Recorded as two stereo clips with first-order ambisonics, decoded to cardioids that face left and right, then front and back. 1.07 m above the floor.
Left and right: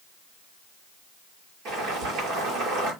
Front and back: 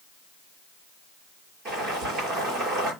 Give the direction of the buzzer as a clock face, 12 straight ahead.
I don't hear a buzzer.